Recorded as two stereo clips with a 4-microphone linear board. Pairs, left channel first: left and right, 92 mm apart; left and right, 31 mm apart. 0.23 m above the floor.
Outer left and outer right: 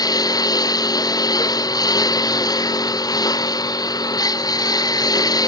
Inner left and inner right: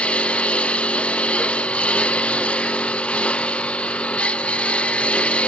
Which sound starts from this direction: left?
A lawn mower, at 0.0 s.